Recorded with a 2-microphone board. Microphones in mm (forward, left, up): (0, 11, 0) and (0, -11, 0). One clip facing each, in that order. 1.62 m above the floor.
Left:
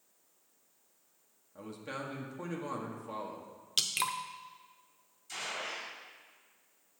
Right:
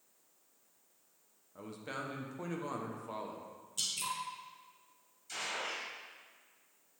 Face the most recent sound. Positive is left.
turn(degrees=-10)  # may be behind; listen again after turning